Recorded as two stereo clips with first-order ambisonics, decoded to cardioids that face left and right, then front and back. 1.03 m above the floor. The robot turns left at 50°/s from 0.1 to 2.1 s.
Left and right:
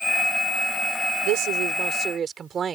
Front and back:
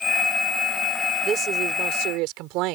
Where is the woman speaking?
115° right; by 2.8 s 155° right.